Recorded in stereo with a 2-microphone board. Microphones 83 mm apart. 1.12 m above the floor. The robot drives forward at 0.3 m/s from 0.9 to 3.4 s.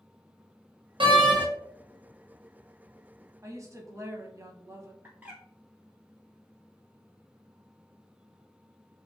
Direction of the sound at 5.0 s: 20° right (ahead or behind).